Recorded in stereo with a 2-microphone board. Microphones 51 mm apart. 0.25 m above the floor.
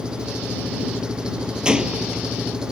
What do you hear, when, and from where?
0.0 s an engine running: 15° right (ahead or behind)
1.6 s a gunshot: 15° right (ahead or behind)